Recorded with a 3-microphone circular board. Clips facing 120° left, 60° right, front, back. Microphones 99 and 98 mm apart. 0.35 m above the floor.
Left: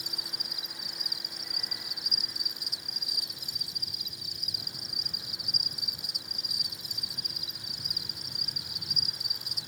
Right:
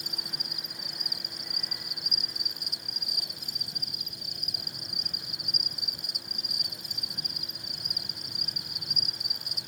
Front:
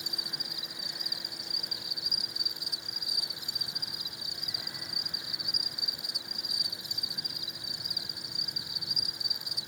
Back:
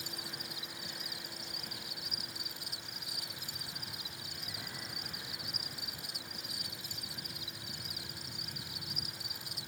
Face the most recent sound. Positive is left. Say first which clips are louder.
# right 2 dB, front 1 dB
turn(degrees=-65)